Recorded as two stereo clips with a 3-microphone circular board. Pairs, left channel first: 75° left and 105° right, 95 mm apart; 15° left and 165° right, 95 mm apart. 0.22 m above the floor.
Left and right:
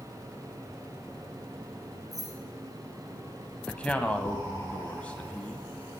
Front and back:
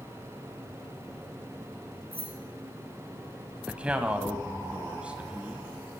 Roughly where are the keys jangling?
Behind right.